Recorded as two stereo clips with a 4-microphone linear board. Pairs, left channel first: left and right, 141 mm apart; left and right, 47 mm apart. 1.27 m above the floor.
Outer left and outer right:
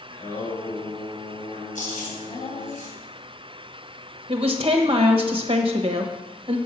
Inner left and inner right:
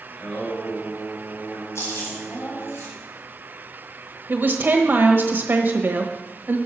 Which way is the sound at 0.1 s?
45° left (ahead or behind).